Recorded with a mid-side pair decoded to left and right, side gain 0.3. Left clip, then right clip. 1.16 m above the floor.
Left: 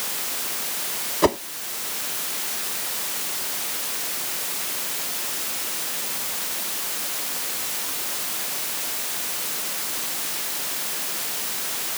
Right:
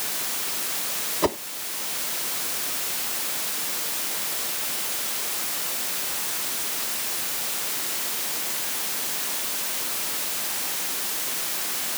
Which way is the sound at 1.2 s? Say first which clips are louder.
Left 5 dB; 40° left.